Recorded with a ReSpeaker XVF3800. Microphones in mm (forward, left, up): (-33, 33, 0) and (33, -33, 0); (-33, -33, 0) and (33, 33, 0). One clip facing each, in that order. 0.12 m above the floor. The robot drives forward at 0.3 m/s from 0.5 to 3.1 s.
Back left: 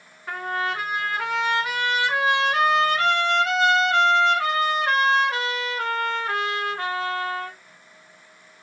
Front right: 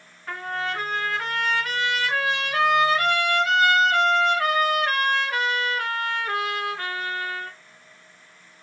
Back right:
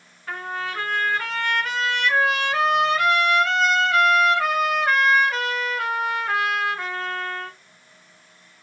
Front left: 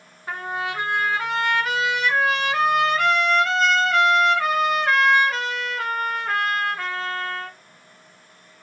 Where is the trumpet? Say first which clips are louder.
Back left 2 dB, front left 2 dB; 60° left, 1.5 m; by 7.6 s 140° left, 1.5 m.